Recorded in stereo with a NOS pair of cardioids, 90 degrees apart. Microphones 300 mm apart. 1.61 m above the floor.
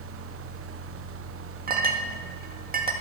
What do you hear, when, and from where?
0.0 s a fan: 55° right, 1.0 m
1.7 s a clink: 35° right, 2.0 m